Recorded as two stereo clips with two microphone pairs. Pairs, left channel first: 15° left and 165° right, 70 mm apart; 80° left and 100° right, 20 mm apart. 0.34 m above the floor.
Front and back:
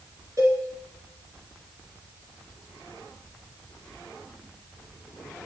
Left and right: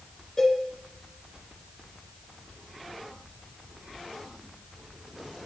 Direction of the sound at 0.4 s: 150° left.